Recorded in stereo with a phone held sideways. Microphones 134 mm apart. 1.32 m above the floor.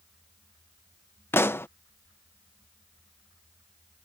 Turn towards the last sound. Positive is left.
turn(degrees=20)  # may be behind; listen again after turning